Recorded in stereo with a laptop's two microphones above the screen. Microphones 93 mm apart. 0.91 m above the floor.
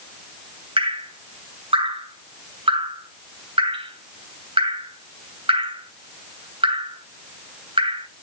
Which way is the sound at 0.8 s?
80° right.